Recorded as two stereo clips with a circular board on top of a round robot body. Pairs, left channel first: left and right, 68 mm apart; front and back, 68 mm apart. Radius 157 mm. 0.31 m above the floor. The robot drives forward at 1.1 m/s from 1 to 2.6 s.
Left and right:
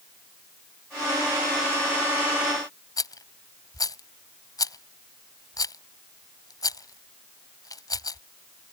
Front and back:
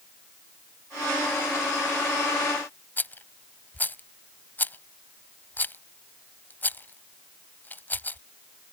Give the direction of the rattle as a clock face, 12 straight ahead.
10 o'clock.